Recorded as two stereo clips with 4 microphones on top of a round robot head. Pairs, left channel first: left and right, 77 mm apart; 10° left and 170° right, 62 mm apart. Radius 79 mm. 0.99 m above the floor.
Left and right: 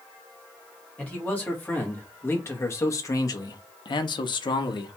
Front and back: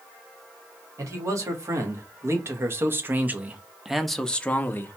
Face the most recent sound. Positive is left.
turn(degrees=60)